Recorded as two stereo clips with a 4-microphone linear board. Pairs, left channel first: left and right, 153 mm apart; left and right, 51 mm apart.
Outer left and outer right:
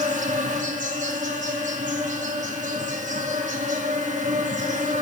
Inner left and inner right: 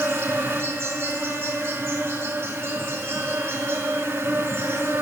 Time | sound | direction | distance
0.0 | an insect | 55° right (ahead or behind) | 1.8 m